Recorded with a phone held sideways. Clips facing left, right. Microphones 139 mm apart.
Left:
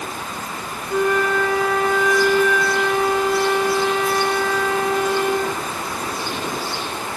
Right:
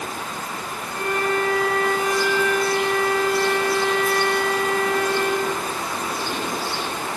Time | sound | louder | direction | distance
0.9 | a flute | left 5 dB | 80° left | 6 m